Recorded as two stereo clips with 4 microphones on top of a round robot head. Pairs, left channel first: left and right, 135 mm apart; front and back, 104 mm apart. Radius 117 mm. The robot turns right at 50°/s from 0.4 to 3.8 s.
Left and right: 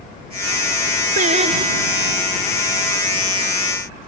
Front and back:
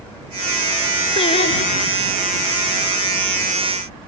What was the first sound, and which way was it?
Singing, 55° right.